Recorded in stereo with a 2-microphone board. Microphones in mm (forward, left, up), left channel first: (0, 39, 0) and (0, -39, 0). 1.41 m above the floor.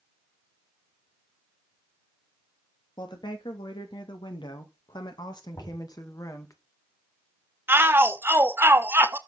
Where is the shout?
30° right (ahead or behind), 1.3 m.